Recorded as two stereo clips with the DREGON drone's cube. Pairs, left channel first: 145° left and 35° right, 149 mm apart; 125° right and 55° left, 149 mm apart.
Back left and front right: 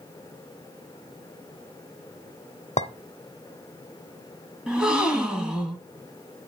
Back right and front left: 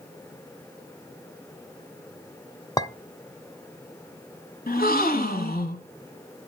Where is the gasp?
120° right, 1.5 m.